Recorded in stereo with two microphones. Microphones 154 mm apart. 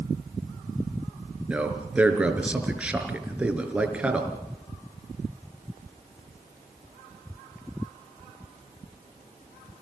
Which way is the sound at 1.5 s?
5° right (ahead or behind).